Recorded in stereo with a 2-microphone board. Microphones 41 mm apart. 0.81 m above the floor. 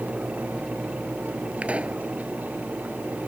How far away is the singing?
I don't hear singing.